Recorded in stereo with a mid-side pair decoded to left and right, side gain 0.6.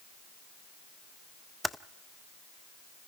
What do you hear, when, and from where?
1.6 s typing on a keyboard: straight ahead, 0.5 m